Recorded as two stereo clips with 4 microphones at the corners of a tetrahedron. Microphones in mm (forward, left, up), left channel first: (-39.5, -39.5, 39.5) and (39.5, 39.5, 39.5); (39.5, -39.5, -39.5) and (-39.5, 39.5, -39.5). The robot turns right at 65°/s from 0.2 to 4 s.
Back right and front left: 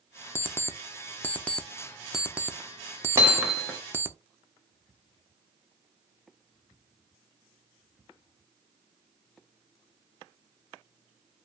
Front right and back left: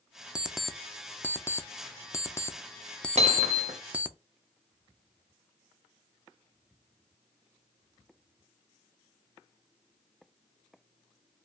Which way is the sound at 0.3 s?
155° right.